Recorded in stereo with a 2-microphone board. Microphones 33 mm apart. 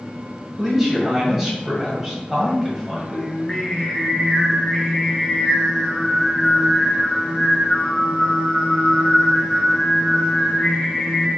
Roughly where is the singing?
Centre.